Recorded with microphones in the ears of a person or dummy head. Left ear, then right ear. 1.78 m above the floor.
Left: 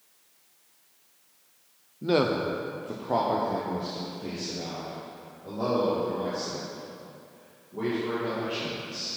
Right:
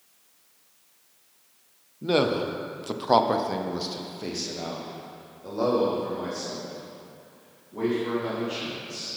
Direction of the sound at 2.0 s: Centre (ahead or behind).